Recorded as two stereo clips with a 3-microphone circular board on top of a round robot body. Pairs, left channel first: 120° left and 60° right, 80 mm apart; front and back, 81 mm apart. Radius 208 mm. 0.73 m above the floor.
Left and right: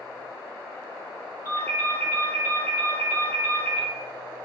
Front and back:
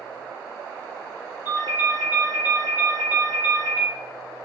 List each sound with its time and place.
1.4 s a ringtone: 60° left, 1.7 m